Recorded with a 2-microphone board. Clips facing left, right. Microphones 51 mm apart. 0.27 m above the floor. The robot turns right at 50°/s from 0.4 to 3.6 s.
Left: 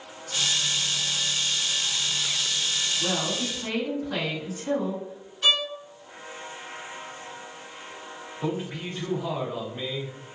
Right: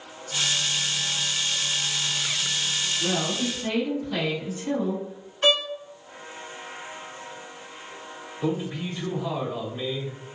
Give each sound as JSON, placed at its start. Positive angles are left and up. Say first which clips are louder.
{"t": 3.0, "sound": "a woman speaking", "louder": "right 3 dB", "azimuth_deg": 50, "distance_m": 2.0}
{"t": 5.4, "sound": "a violin", "louder": "right 2 dB", "side_deg": -40, "distance_m": 0.7}
{"t": 8.4, "sound": "a man speaking", "louder": "right 3 dB", "side_deg": 35, "distance_m": 1.5}